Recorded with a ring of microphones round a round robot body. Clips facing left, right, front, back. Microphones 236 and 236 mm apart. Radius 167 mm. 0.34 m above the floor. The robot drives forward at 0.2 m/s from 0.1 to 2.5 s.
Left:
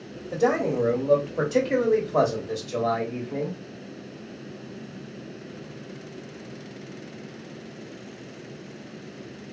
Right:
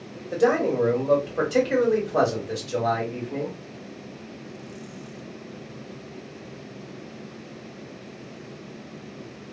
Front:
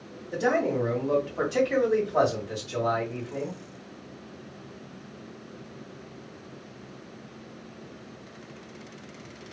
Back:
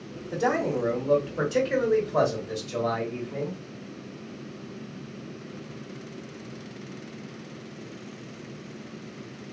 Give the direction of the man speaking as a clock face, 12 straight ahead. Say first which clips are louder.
Right 2 dB, front 1 dB; 6 o'clock.